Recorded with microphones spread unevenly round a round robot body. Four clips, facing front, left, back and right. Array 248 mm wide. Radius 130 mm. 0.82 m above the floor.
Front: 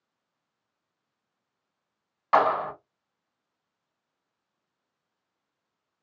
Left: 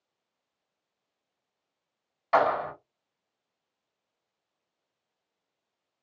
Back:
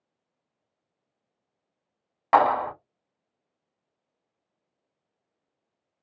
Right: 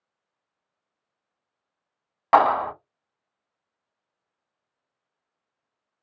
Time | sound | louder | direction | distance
2.3 | a clap | right 6 dB, back 2 dB | 90° right | 1.4 m